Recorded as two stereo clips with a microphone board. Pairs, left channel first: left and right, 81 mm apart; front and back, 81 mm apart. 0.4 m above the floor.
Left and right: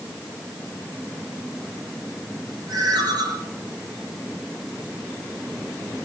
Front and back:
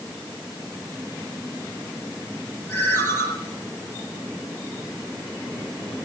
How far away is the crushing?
No crushing in this recording.